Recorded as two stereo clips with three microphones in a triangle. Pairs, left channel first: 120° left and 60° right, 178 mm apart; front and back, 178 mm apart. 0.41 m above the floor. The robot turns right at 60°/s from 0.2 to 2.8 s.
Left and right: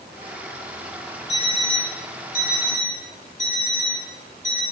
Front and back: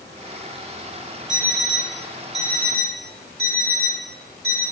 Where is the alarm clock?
75° left, 1.7 m; by 4.6 s 165° left, 1.7 m.